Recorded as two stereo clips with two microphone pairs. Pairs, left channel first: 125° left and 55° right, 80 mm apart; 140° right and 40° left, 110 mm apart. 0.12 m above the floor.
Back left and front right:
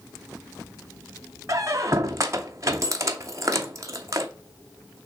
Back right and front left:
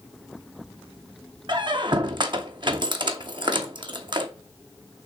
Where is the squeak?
5° right, 0.7 m.